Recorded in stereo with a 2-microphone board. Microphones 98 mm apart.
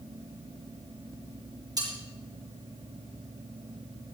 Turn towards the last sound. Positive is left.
turn(degrees=-40)  # may be behind; listen again after turning